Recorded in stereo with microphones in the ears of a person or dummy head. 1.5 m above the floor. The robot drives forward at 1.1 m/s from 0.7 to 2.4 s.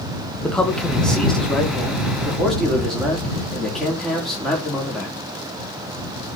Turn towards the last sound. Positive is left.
turn(degrees=5)  # may be behind; listen again after turning